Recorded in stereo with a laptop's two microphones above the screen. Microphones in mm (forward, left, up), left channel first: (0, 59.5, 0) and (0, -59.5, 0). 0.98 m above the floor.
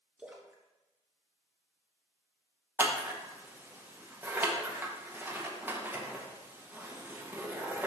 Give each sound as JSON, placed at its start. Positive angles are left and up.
{"t": 0.2, "sound": "a splash", "side_deg": -10, "distance_m": 1.5}
{"t": 2.8, "sound": "scissors", "side_deg": -15, "distance_m": 0.9}